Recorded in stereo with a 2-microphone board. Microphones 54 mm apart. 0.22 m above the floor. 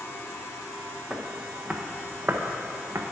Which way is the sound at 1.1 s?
10° right (ahead or behind).